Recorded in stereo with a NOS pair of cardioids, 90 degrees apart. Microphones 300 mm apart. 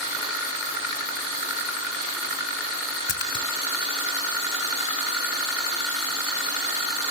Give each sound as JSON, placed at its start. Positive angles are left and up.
{"t": 3.1, "sound": "a splash", "azimuth_deg": 35, "distance_m": 3.0}